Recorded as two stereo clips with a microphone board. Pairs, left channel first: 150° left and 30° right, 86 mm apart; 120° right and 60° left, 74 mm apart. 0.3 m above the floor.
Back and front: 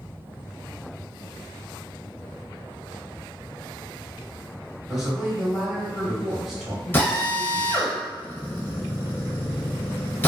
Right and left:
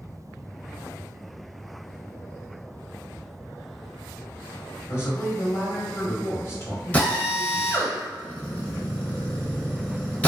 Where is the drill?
170° right, 0.8 m.